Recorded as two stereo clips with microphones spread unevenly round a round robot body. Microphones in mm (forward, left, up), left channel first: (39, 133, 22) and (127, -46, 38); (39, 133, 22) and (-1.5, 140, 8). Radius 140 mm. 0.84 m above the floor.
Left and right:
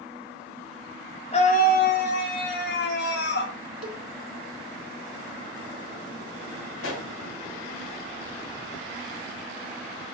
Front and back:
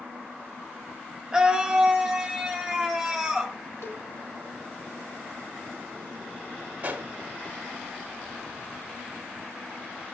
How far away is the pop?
About 2 m.